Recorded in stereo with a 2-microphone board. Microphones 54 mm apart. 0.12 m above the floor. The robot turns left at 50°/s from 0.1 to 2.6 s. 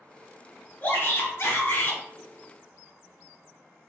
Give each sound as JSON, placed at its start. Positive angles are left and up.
{"t": 0.8, "sound": "a shout", "azimuth_deg": 140, "distance_m": 1.5}